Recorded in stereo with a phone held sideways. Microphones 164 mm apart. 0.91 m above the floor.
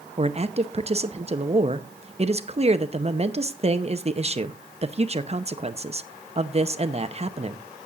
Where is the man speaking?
40° right (ahead or behind), 0.7 m.